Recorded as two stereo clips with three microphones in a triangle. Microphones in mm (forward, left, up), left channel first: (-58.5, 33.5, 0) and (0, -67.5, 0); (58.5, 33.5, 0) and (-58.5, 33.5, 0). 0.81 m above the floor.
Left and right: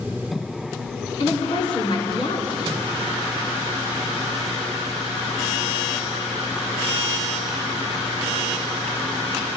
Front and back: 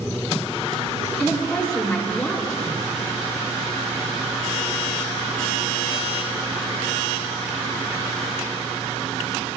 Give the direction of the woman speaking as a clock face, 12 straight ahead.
9 o'clock.